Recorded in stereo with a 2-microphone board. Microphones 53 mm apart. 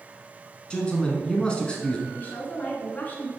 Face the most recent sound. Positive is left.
turn(degrees=30)  # may be behind; listen again after turning